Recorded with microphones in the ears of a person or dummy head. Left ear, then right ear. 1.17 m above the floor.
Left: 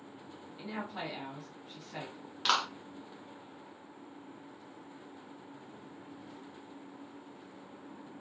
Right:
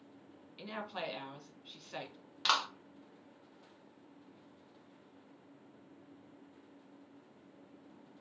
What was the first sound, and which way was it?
A woman speaking, 45° right (ahead or behind).